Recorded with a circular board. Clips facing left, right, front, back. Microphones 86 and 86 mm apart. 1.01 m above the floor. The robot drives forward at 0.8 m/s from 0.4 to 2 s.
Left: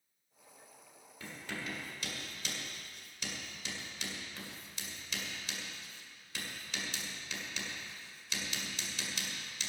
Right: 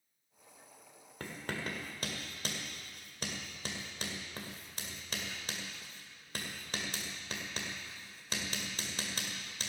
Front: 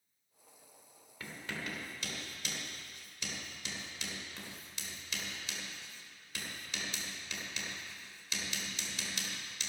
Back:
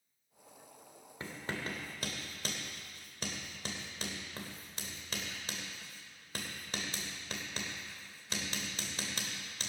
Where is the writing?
120° right, 1.6 m; by 9.7 s 135° right, 2 m.